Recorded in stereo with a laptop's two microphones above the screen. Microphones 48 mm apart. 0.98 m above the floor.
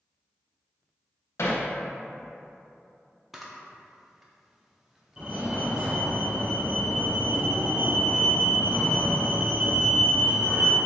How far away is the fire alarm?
About 1.3 m.